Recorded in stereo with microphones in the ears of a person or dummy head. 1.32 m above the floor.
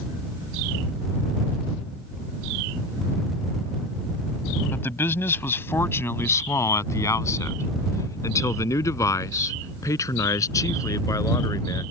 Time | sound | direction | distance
4.7 | a man speaking | 15° left (ahead or behind) | ?